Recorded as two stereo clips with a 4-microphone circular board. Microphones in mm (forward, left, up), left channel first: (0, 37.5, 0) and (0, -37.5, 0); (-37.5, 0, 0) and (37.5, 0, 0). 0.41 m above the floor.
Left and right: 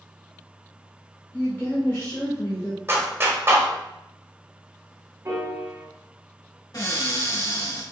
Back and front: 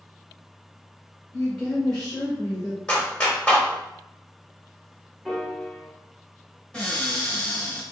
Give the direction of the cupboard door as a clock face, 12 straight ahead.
9 o'clock.